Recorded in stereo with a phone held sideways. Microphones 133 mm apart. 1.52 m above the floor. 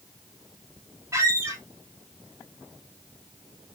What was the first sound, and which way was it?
A squeak, 20° right (ahead or behind).